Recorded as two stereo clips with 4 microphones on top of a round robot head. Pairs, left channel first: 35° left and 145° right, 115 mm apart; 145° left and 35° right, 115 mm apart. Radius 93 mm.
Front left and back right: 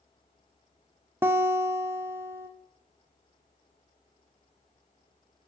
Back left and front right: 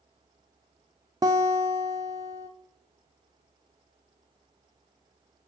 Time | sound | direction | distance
1.2 | a guitar | 80° right | 0.6 m